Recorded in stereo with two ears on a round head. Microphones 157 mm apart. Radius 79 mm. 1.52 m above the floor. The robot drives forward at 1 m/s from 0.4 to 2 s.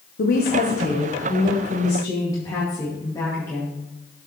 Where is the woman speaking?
60° left (ahead or behind), 0.9 m; by 3.8 s 20° left (ahead or behind), 2 m.